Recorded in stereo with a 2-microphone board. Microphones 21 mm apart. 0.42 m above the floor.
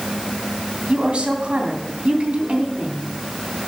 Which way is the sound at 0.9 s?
55° right (ahead or behind).